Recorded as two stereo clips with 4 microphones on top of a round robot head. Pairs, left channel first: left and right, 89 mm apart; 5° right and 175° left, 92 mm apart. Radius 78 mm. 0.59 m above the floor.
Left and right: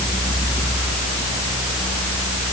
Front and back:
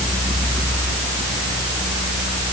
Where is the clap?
I don't hear a clap.